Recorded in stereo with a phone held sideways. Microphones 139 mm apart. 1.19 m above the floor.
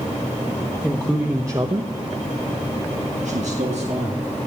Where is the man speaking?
Centre (ahead or behind), 1.4 m; by 4.3 s 50° right (ahead or behind), 2.5 m.